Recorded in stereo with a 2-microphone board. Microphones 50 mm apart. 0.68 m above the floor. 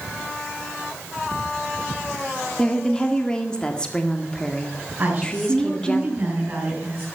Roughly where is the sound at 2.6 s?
Centre.